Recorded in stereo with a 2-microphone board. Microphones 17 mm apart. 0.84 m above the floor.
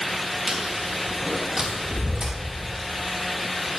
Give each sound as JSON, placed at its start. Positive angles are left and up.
{"t": 0.5, "sound": "chewing", "side_deg": -55, "distance_m": 3.0}